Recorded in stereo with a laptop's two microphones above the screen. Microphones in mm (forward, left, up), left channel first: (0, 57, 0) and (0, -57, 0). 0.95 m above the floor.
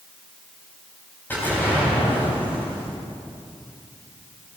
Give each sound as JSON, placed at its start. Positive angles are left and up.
{"t": 1.3, "sound": "an explosion", "side_deg": 20, "distance_m": 3.5}